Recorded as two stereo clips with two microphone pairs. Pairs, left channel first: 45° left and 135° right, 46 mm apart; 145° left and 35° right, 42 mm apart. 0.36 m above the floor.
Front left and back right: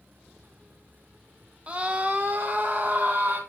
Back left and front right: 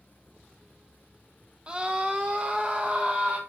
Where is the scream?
90° right, 1.2 m; by 3.4 s 95° right, 2 m.